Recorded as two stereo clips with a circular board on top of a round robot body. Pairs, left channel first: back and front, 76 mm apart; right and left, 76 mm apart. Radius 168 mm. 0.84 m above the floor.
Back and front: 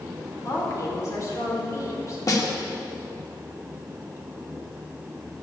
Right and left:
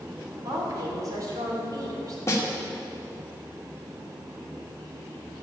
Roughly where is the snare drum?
Behind right.